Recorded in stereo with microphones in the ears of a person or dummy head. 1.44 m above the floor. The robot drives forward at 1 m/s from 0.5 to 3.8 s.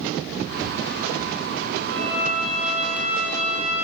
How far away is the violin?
About 3 m.